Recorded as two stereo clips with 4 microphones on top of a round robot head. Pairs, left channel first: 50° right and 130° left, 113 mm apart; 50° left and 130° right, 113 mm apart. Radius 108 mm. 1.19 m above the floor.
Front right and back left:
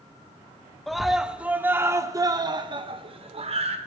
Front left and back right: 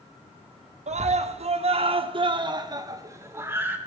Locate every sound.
0.9 s a scream: 140° right, 1.8 m; by 3.8 s 155° left, 2 m